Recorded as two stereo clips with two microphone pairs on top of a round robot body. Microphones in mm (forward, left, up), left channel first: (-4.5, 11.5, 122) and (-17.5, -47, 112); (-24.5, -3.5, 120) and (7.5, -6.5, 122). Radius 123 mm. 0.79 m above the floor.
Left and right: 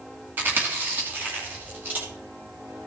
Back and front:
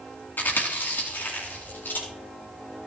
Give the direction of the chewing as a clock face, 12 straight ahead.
6 o'clock.